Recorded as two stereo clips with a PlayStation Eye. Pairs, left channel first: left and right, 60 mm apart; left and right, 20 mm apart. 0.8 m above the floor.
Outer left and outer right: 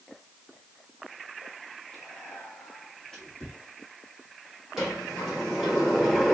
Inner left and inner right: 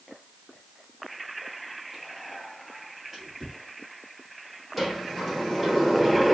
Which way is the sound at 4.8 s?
10° right (ahead or behind).